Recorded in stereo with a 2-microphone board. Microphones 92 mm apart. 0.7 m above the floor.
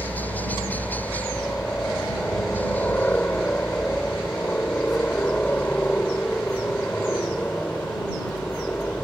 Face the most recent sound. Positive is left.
turn(degrees=20)  # may be behind; listen again after turning